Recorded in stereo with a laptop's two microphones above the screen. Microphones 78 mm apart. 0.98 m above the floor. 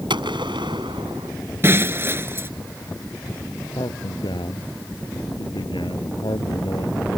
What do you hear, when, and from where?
0.1 s a gunshot: 85° right
1.6 s breaking glass: 30° right (ahead or behind)
3.7 s a man speaking: 85° left